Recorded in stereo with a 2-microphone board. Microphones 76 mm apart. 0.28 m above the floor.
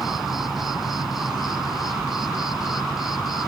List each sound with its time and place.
0.0 s an insect: 5° right (ahead or behind)